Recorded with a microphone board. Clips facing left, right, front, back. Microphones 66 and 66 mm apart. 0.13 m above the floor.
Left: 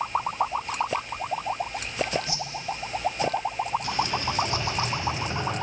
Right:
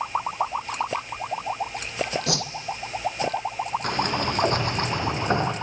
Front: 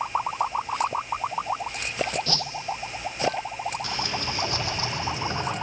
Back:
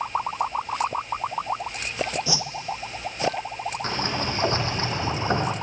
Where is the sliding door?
125° right, 2.5 m.